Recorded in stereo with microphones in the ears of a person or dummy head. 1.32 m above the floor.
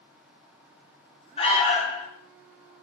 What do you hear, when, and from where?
1.4 s an alarm: 35° left (ahead or behind), 4 m